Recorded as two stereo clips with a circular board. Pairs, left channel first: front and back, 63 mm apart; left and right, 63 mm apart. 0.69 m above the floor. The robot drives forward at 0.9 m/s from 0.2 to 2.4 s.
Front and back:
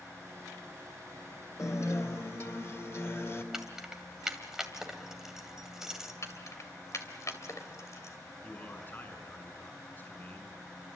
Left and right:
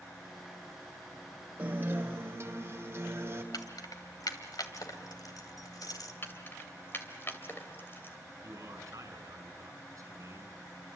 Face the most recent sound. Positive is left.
turn(degrees=-60)